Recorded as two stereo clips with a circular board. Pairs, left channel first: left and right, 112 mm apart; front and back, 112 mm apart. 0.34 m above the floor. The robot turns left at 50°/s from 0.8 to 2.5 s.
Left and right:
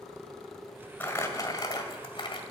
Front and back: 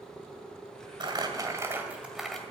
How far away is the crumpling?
About 1.9 m.